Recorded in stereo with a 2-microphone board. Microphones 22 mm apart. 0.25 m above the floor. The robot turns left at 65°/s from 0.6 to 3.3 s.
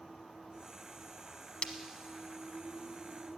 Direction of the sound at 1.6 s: 50° left (ahead or behind).